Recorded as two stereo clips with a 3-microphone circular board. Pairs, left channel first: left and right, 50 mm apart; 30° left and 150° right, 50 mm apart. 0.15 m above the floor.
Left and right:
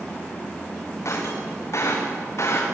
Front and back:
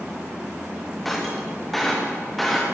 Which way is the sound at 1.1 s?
120° left.